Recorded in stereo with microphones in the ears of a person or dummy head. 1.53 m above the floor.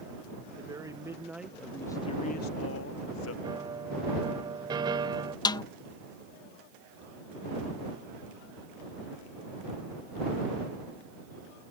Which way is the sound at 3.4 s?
20° right (ahead or behind).